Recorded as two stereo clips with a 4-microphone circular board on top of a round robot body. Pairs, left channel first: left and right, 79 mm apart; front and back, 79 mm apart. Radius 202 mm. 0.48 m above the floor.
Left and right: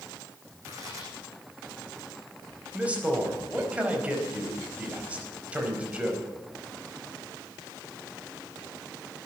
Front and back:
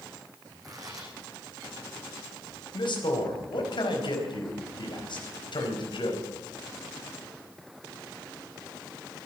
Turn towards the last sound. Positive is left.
turn(degrees=-15)